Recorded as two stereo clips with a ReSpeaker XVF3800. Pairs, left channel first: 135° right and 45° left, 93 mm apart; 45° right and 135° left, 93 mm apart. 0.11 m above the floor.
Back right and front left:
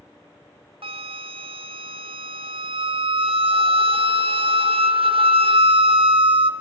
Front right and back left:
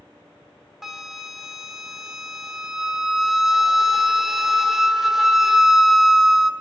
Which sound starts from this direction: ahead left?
A flute, at 0.8 s.